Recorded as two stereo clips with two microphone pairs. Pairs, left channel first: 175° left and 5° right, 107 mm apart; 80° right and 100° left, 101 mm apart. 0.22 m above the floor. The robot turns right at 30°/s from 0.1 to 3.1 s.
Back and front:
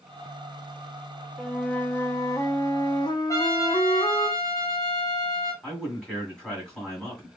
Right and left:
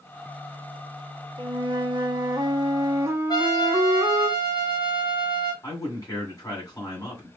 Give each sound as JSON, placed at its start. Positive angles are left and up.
{"t": 1.4, "sound": "a flute", "azimuth_deg": 95, "distance_m": 0.6}
{"t": 3.3, "sound": "a trumpet", "azimuth_deg": -125, "distance_m": 1.2}
{"t": 5.6, "sound": "a man speaking", "azimuth_deg": -110, "distance_m": 1.8}